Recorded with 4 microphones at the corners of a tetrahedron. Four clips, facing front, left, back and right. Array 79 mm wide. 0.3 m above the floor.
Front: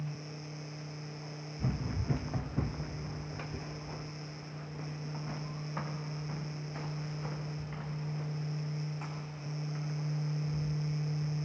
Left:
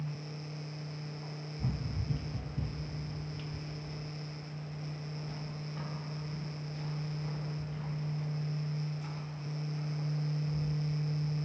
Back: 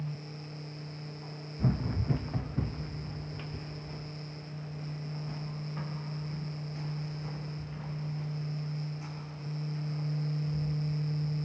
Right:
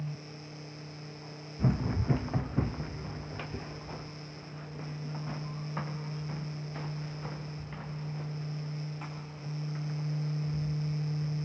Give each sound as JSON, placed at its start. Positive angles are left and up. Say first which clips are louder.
{"t": 1.6, "sound": "running footsteps", "louder": "right 9 dB, back 5 dB", "azimuth_deg": -115, "distance_m": 0.6}